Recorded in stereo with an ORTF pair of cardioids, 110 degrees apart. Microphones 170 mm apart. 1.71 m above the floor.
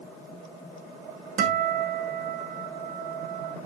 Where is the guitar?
60° right, 2.5 m.